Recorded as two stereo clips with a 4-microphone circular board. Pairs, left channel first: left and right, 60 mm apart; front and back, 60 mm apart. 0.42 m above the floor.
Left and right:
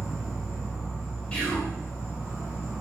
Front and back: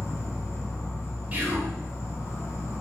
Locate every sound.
0.0 s an insect: 5° right, 1.7 m
1.3 s whispering: 150° left, 1.1 m